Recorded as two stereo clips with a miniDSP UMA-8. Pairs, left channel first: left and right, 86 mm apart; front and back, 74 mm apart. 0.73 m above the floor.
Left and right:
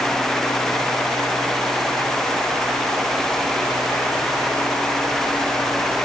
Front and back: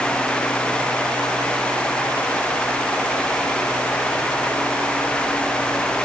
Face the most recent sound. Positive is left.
No sound to turn to.